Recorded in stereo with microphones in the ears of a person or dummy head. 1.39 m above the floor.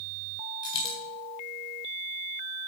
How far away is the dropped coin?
About 3.5 m.